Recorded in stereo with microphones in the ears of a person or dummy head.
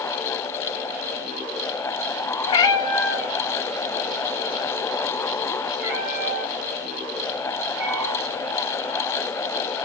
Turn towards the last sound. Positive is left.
turn(degrees=-65)  # may be behind; listen again after turning